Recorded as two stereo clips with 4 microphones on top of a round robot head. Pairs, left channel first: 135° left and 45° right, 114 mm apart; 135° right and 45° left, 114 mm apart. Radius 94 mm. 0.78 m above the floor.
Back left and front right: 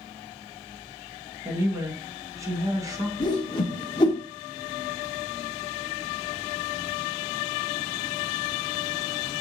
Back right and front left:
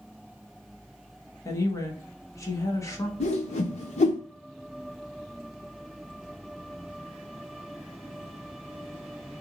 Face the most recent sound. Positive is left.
turn(degrees=-170)